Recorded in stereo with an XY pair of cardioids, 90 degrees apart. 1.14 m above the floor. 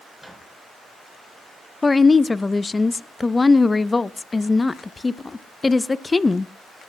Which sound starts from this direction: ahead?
A microwave, at 0.2 s.